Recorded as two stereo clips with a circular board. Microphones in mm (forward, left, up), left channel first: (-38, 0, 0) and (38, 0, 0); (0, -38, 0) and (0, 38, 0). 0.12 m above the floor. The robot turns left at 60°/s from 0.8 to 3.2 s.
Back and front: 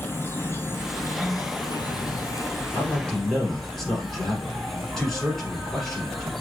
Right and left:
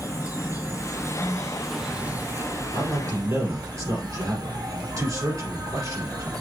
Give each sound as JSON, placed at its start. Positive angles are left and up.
{"t": 0.0, "sound": "an insect", "azimuth_deg": -125, "distance_m": 0.8}
{"t": 2.7, "sound": "a man speaking", "azimuth_deg": 125, "distance_m": 2.5}